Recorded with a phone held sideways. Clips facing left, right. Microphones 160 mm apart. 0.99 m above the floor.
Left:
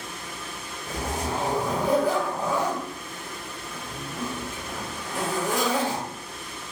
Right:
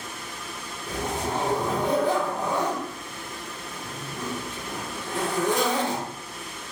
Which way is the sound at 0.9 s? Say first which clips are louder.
Right 1 dB; 30° right (ahead or behind).